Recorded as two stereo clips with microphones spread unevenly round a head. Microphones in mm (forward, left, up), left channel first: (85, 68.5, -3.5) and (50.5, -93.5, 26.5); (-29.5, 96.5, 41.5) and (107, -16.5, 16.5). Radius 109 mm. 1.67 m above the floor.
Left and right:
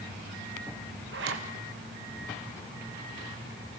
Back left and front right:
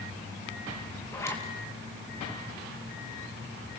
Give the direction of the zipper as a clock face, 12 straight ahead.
5 o'clock.